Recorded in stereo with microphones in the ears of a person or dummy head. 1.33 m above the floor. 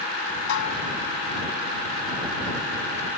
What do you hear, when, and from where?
0.5 s dishes clattering: 60° left (ahead or behind)